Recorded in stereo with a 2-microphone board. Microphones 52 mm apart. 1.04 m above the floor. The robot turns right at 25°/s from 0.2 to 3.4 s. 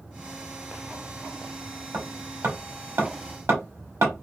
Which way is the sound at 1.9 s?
50° right (ahead or behind).